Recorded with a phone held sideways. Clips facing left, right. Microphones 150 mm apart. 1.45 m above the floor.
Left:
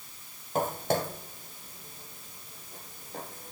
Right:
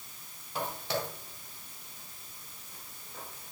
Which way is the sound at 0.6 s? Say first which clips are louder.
Left 6 dB; 45° left (ahead or behind).